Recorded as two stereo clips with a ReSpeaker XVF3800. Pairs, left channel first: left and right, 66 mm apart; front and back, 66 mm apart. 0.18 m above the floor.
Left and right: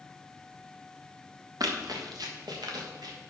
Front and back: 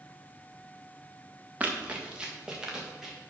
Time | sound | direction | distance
1.6 | running footsteps | 110° right | 2 m